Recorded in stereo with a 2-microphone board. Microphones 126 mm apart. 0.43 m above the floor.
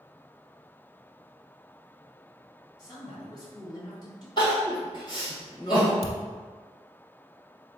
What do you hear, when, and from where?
2.8 s a man speaking: 35° left (ahead or behind), 1.6 m
4.4 s crying: 40° left (ahead or behind), 2.0 m
6.0 s a thud: 50° left (ahead or behind), 0.5 m